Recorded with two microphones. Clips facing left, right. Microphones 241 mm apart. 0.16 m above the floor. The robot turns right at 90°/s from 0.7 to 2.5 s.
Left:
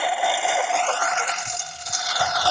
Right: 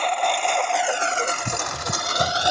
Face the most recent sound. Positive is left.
turn(degrees=-20)  # may be behind; listen again after turning